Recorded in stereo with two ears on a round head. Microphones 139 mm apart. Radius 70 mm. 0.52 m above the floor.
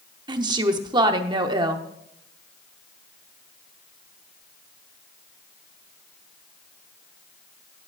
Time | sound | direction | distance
0.3 | a woman speaking | 30° right (ahead or behind) | 0.9 m